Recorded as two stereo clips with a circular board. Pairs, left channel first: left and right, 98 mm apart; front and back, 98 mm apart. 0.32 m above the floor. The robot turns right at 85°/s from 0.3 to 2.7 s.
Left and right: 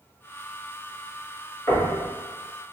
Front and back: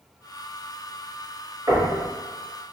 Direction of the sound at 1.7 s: 140° left.